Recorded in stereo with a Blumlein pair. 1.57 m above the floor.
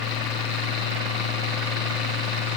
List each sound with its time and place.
0.0 s a fan: 35° left